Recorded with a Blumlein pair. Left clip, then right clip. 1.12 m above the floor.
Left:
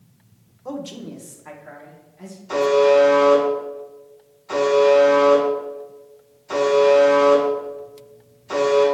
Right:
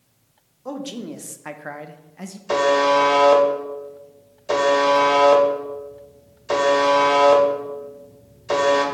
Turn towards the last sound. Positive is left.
turn(degrees=-60)